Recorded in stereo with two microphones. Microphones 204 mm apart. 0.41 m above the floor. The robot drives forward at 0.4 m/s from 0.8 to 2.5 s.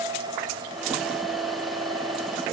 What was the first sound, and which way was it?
Only background noise.